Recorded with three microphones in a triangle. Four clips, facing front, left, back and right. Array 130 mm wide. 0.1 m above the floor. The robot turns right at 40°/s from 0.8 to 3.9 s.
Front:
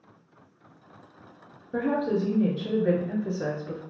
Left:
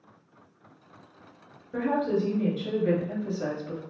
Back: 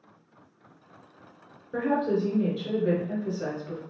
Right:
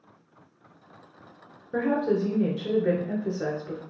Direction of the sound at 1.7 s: 115° right.